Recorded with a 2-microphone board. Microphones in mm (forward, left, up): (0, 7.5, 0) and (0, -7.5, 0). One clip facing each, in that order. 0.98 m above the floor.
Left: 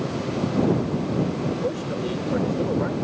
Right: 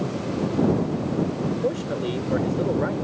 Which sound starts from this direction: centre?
A man speaking, at 1.6 s.